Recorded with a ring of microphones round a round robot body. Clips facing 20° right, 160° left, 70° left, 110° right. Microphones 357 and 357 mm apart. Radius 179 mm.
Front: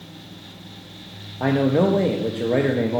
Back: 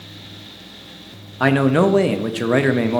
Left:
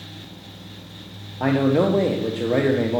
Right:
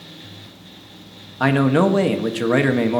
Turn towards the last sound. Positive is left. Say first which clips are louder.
# back 3 dB, right 2 dB
turn(degrees=-155)